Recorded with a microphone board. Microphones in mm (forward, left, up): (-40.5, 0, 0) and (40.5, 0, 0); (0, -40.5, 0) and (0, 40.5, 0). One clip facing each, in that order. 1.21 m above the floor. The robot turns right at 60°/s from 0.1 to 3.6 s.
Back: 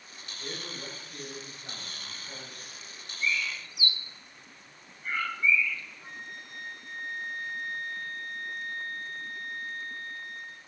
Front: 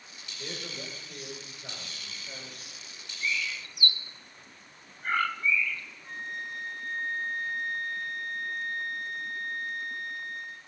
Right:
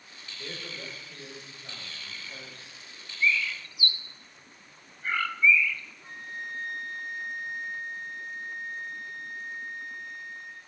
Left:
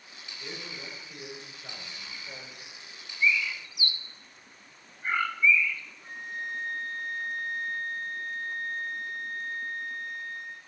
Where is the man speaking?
45° right, 4.5 m; by 2.6 s 85° left, 4.5 m.